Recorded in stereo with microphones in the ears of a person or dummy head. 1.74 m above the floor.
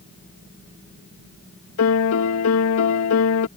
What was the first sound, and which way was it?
A piano, 80° left.